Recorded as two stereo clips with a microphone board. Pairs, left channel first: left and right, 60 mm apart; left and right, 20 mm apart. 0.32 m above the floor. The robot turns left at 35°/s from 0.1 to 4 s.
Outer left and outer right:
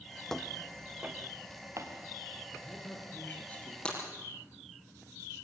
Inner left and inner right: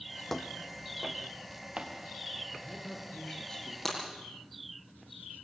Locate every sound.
0.3 s footsteps: 10° left (ahead or behind), 1.1 m; by 2.4 s 80° right, 4 m
2.5 s a man speaking: 60° left, 5.5 m; by 3.8 s 15° left, 5.5 m
3.9 s breaking glass: 15° left (ahead or behind), 6 m; by 4.0 s 20° left (ahead or behind), 6 m